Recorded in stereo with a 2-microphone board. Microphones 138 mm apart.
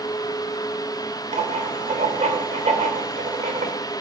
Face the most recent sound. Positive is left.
turn(degrees=-60)  # may be behind; listen again after turning